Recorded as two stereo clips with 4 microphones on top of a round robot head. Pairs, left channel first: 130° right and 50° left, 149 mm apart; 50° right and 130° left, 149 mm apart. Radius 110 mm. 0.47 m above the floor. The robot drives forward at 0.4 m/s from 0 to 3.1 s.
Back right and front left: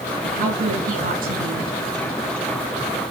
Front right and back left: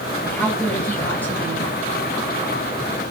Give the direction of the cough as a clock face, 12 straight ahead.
No cough in this recording.